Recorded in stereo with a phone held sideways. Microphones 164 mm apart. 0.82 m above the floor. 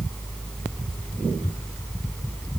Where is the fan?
10° left (ahead or behind).